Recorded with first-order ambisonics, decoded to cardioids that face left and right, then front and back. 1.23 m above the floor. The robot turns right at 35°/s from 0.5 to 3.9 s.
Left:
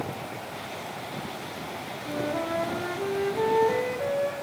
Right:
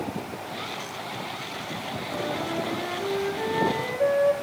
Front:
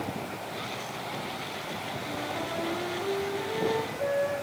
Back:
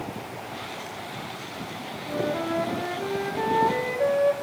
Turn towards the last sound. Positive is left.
turn(degrees=145)